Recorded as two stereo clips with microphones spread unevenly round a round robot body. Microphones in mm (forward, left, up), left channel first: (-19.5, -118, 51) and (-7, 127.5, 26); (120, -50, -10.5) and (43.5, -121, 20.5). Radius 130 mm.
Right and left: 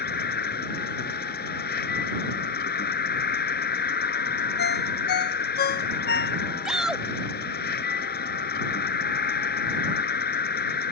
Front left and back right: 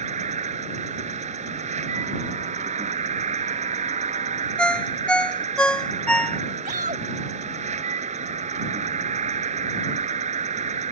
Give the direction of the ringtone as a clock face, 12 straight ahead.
1 o'clock.